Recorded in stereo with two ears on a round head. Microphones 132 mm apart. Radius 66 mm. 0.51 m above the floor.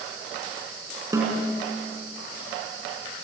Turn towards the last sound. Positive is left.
turn(degrees=-20)  # may be behind; listen again after turning